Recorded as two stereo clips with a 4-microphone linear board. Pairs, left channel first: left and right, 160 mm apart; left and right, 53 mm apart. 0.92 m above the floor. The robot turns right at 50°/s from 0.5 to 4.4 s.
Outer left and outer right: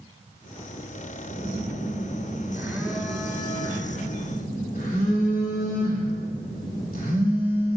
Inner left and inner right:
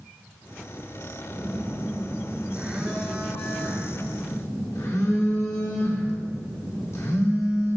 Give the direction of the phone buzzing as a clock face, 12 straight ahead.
3 o'clock.